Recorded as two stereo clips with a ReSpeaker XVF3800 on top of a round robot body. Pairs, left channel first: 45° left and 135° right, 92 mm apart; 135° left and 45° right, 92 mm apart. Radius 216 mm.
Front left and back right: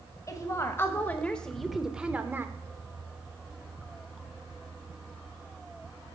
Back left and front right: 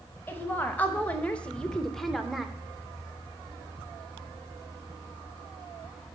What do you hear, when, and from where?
0.3 s a woman speaking: 75° left, 1.4 m; by 2.5 s 130° right, 1.2 m